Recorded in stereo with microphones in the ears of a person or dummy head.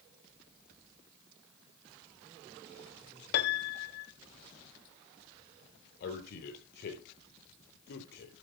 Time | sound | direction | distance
3.3 | a piano | 60° left (ahead or behind) | 0.8 m
6.0 | a man speaking | 60° left (ahead or behind) | 3.5 m